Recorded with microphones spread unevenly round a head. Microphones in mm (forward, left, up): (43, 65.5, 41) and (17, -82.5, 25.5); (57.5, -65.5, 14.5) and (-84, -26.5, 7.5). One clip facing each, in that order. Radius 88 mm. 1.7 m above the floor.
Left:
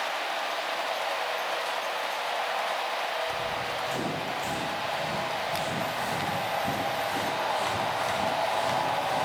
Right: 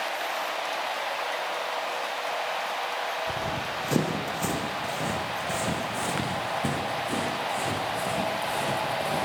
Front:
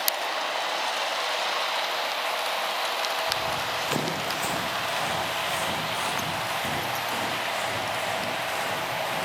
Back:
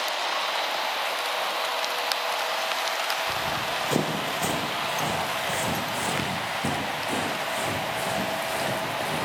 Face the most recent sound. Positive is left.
turn(degrees=-145)